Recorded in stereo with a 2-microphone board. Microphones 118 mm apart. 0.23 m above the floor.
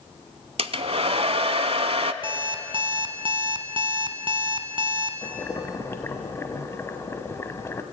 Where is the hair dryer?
60° right (ahead or behind), 0.7 m.